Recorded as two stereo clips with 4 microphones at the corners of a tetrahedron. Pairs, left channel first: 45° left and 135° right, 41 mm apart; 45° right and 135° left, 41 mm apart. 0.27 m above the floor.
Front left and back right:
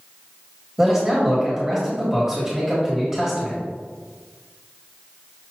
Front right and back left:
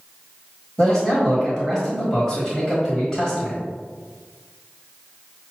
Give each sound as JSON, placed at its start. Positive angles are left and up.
{"t": 0.8, "sound": "a man speaking", "azimuth_deg": -90, "distance_m": 1.4}